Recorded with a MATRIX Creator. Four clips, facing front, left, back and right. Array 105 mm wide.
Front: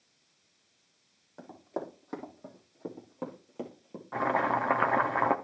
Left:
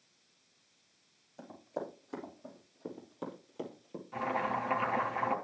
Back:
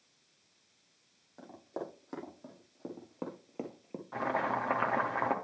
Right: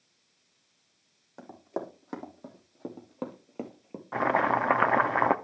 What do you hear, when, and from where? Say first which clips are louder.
1.4 s running footsteps: right 4 dB, front 3 dB; 75° right, 4 m; by 4.0 s 130° right, 1.9 m
4.1 s boiling: right 8 dB, front 5 dB; 75° right, 0.7 m